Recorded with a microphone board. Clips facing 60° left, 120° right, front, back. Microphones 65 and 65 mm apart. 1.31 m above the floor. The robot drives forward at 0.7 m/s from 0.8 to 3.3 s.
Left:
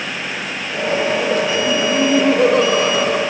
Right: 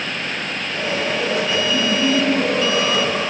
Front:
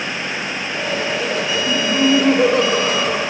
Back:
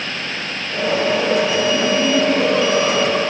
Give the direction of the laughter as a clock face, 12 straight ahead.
11 o'clock.